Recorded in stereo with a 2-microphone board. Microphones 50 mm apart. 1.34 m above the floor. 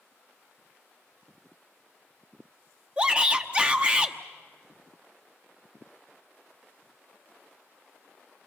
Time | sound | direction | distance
3.0 | a shout | 20° right (ahead or behind) | 1.1 m